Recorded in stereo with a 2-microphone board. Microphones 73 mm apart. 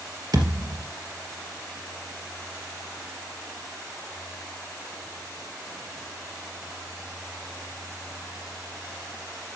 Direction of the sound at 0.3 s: 65° right (ahead or behind).